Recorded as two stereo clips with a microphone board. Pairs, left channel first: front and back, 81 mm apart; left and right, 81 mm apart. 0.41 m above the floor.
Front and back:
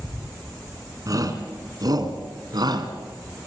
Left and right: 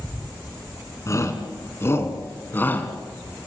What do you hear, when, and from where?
1.1 s a shout: 140° left, 4.5 m; by 2.9 s 155° left, 4 m